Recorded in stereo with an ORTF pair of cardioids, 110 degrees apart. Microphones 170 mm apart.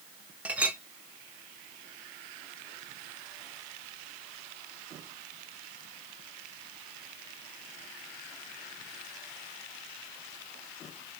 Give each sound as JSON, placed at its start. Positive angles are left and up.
{"t": 0.5, "sound": "a clink", "azimuth_deg": -10, "distance_m": 0.6}